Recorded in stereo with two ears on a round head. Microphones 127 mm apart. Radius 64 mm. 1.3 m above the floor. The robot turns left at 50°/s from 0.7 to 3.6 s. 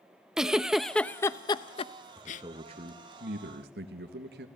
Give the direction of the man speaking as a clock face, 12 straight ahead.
1 o'clock.